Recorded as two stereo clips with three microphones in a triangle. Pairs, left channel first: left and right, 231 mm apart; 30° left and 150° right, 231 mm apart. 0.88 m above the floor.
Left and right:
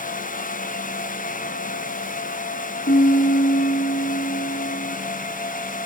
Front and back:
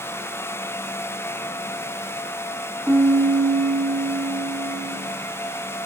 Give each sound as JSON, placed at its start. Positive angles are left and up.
{"t": 2.9, "sound": "a piano", "azimuth_deg": 125, "distance_m": 1.6}